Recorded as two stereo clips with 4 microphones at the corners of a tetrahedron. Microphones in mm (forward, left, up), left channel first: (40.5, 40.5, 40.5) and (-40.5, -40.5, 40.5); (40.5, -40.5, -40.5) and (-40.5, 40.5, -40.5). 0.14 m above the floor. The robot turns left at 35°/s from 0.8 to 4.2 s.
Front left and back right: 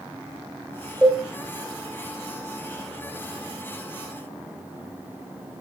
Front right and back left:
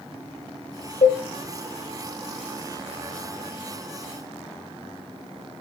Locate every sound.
1.0 s a cowbell: 55° right, 7.5 m; by 1.2 s 60° right, 7.5 m